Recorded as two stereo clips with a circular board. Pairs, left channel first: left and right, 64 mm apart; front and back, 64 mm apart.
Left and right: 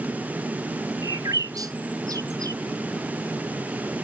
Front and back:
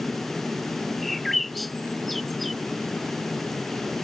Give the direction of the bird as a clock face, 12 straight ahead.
3 o'clock.